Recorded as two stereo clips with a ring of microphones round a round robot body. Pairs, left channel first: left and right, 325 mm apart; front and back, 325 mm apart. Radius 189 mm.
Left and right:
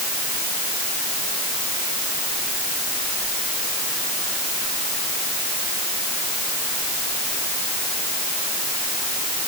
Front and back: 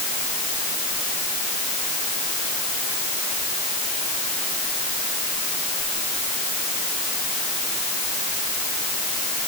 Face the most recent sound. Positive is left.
No sound to turn to.